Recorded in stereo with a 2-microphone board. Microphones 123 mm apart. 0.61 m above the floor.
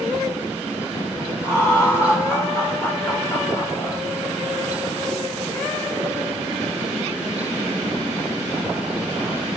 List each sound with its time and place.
1.4 s laughter: 25° left (ahead or behind), 2 m